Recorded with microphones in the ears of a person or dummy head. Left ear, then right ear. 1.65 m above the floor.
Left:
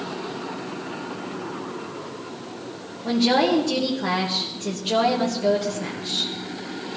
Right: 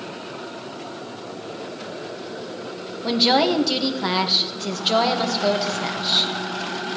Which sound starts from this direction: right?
A woman speaking, at 3.0 s.